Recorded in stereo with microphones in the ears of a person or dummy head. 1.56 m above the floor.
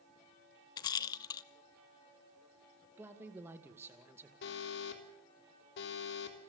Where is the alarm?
65° left (ahead or behind), 3.5 m.